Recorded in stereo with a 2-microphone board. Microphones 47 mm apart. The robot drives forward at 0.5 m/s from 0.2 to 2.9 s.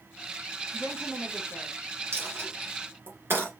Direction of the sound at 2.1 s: 65° right (ahead or behind).